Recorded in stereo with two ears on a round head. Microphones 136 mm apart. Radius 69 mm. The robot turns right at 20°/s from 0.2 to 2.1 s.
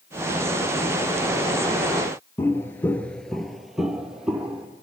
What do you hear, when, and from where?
2.4 s footsteps: 15° left (ahead or behind), 0.9 m; by 4.7 s 5° right (ahead or behind), 1.9 m